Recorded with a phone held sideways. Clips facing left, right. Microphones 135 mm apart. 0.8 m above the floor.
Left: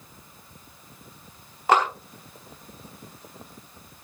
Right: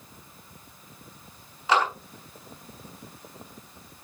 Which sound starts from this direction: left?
A clap, at 1.7 s.